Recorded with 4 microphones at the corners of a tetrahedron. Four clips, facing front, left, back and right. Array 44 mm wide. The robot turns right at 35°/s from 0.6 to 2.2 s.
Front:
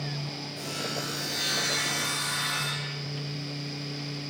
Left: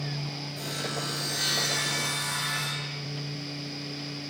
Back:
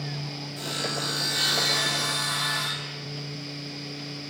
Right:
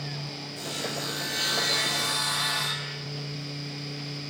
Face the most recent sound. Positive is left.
turn(degrees=-135)